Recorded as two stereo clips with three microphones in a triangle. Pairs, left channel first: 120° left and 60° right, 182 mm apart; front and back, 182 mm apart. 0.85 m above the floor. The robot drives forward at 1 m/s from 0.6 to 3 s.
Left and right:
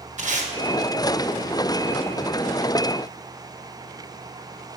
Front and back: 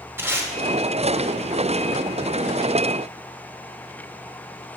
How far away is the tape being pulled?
About 1.0 m.